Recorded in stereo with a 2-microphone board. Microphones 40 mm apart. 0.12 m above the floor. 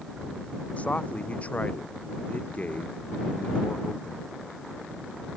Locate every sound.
0.8 s a man speaking: 35° left (ahead or behind)